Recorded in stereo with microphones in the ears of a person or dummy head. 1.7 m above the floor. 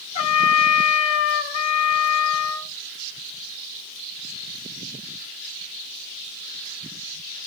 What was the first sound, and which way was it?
A trumpet, 35° left (ahead or behind).